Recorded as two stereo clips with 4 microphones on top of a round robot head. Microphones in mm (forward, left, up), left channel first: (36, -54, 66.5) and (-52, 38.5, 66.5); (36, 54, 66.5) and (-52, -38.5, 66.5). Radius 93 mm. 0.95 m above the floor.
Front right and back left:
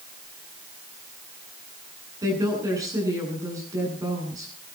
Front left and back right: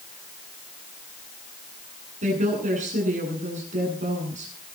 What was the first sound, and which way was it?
A woman speaking, 160° right.